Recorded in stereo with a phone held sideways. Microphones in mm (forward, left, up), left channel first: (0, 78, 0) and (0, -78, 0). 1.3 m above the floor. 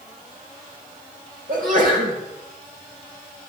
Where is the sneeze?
60° right (ahead or behind), 4.5 m.